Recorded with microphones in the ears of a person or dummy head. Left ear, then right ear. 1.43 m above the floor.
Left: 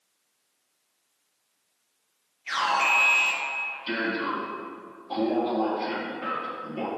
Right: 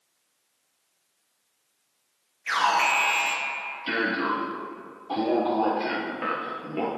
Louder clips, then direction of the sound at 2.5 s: Right 1 dB; 35° right (ahead or behind).